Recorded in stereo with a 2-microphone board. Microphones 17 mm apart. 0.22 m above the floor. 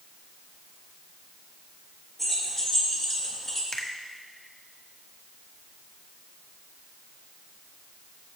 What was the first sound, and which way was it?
Keys jangling, 10° left (ahead or behind).